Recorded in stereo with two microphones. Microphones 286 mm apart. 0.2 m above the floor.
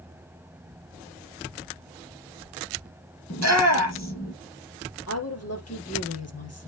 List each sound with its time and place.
3.3 s a shout: 65° left (ahead or behind), 5 m
5.1 s a woman speaking: 60° left (ahead or behind), 4 m